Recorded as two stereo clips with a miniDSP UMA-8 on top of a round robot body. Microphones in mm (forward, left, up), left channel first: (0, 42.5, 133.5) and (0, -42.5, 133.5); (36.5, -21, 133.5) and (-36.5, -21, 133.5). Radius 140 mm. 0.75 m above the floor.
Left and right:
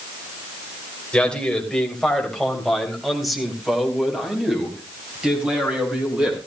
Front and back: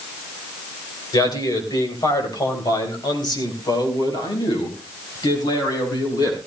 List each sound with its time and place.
1.1 s a man speaking: 10° left, 3 m; by 6.4 s 15° right, 6.5 m